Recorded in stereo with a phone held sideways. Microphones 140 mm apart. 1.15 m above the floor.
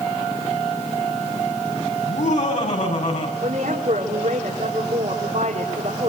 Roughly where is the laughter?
Left.